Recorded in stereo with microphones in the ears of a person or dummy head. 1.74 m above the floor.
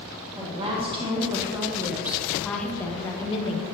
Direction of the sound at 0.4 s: 30° right (ahead or behind).